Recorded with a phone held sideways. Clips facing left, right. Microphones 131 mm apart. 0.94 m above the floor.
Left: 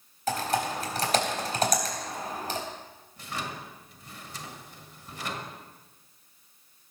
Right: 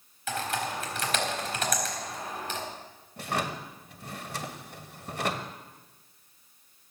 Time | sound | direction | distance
0.3 | typing on a keyboard | 40° left (ahead or behind) | 3.5 m
3.2 | a drawer | 65° right (ahead or behind) | 1.3 m